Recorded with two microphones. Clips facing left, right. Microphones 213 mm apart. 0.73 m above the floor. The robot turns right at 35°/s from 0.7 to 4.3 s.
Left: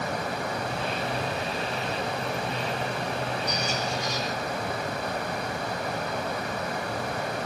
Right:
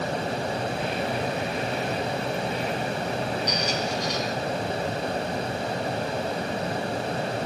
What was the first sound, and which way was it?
A squeak, 85° right.